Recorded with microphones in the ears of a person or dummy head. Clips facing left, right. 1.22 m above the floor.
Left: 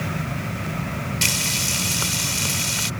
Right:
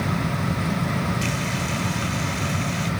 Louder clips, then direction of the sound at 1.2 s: Right 3 dB; 80° left.